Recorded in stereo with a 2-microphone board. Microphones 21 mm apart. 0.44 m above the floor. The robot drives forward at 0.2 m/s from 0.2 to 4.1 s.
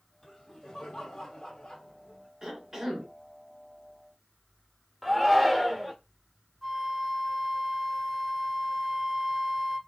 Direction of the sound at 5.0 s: Centre (ahead or behind).